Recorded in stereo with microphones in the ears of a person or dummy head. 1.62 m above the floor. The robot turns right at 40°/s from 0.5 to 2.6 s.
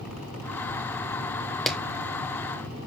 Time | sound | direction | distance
1.7 | a clap | 5° left (ahead or behind) | 1.4 m